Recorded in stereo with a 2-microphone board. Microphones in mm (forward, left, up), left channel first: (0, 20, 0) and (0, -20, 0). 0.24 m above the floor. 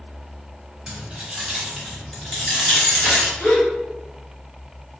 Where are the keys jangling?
20° right (ahead or behind), 1.0 m; by 3.3 s 15° left (ahead or behind), 1.8 m.